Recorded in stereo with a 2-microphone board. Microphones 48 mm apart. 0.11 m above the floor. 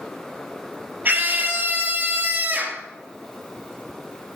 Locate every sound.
1.1 s a scream: 45° right (ahead or behind), 2.5 m